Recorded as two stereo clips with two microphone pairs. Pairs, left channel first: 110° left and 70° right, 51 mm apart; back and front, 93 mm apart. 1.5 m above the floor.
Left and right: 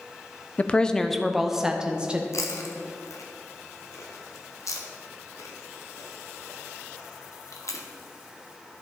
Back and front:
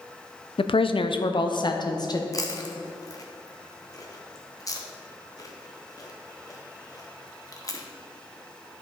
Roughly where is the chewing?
Behind left.